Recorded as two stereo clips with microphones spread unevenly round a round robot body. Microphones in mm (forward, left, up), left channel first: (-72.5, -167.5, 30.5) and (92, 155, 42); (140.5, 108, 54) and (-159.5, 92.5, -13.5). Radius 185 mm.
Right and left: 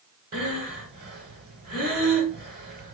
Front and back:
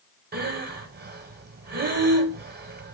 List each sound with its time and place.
0.3 s breathing: 130° left, 0.9 m